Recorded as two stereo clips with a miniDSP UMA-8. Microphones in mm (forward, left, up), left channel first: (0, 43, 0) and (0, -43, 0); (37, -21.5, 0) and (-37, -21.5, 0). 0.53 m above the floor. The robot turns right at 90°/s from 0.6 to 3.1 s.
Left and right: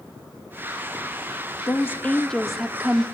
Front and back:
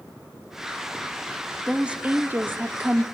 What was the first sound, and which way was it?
A woman speaking, 105° left.